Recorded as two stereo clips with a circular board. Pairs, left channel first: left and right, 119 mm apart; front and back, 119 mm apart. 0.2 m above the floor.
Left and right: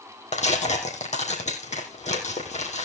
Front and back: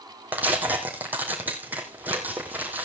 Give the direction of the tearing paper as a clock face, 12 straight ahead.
9 o'clock.